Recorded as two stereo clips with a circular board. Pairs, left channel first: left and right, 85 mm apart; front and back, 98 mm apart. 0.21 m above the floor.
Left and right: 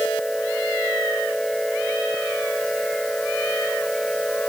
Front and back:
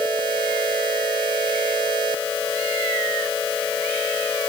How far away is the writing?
I don't hear writing.